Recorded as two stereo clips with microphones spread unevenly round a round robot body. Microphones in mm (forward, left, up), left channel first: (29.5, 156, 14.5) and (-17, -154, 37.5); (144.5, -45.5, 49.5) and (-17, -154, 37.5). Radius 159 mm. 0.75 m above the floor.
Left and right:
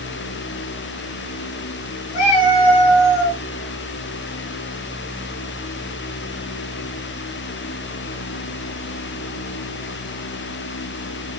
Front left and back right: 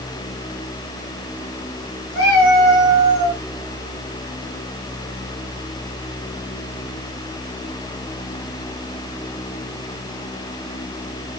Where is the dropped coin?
No dropped coin in this recording.